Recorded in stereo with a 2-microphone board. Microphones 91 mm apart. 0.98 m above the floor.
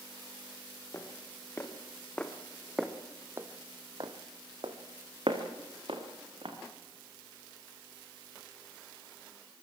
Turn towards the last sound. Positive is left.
turn(degrees=-70)  # may be behind; listen again after turning